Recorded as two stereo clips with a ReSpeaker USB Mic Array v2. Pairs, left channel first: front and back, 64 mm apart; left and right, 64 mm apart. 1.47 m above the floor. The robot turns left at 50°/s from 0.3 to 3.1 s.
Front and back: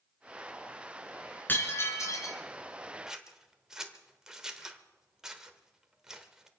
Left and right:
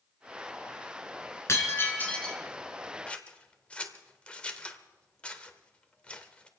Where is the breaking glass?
55° left, 2.5 m; by 2.4 s 10° left, 2.5 m.